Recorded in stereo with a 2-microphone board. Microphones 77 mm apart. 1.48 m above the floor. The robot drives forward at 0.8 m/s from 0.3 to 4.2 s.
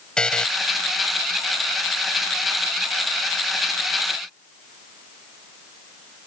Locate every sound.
0.2 s a buzzer: 10° left (ahead or behind)